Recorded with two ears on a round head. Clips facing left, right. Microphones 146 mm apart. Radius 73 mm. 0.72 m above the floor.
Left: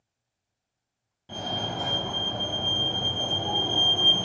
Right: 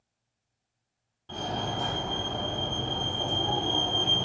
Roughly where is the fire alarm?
Centre.